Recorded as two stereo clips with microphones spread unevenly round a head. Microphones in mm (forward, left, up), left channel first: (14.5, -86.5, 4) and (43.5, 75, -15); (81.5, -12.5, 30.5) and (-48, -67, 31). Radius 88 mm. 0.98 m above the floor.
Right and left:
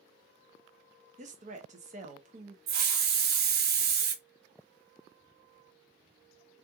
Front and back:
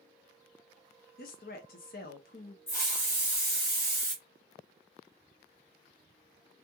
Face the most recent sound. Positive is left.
turn(degrees=95)